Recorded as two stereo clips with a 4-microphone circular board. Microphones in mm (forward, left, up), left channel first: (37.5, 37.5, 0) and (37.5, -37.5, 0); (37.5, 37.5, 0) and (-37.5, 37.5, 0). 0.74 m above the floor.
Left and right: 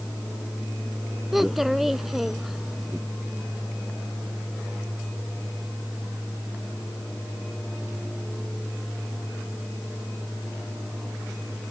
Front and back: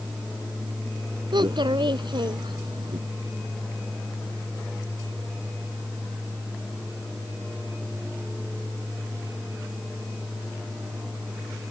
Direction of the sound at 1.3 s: 175° right.